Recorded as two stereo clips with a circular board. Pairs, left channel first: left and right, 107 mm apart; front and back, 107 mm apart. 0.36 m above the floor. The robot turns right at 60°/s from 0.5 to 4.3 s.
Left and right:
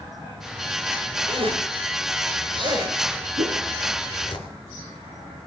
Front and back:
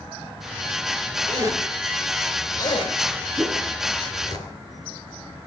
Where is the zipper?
135° right, 3.5 m; by 4.4 s 45° left, 3.5 m.